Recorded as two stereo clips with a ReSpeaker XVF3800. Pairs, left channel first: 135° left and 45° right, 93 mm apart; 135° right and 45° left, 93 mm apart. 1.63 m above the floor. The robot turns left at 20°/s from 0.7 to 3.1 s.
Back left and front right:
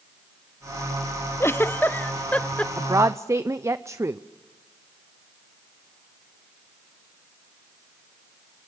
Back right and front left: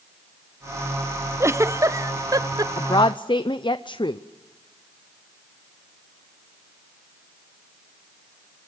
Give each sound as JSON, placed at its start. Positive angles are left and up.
{"t": 1.4, "sound": "a giggle", "azimuth_deg": 90, "distance_m": 0.6}
{"t": 2.8, "sound": "a woman speaking", "azimuth_deg": -95, "distance_m": 0.6}